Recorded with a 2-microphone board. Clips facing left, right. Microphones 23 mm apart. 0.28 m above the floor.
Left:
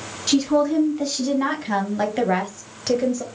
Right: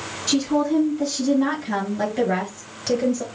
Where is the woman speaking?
30° left (ahead or behind), 3 m; by 3.2 s centre (ahead or behind), 0.9 m.